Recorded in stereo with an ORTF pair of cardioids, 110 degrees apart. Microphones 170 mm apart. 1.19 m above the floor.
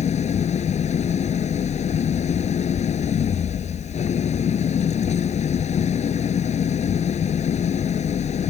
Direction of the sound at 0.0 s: 45° left.